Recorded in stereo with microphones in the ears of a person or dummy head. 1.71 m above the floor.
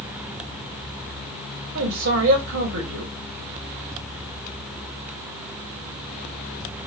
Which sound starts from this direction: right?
A man speaking, at 1.8 s.